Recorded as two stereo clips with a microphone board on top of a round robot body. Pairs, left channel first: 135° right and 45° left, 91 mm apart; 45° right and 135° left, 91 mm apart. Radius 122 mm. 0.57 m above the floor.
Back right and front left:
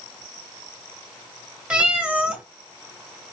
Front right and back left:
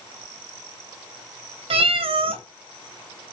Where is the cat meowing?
120° left, 0.9 m.